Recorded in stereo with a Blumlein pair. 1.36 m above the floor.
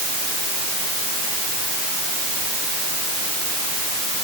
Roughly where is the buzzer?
No buzzer in this recording.